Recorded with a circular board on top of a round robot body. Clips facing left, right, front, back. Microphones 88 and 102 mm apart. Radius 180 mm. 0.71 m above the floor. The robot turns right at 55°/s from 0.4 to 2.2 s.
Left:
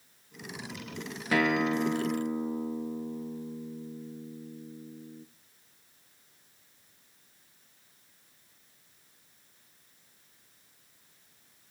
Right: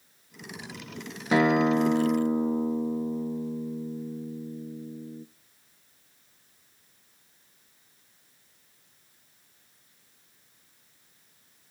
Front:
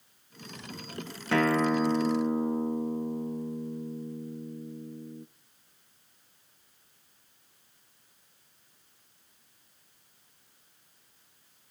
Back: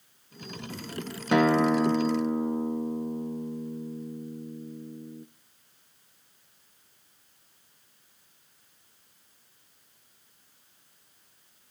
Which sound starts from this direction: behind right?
A guitar, at 1.3 s.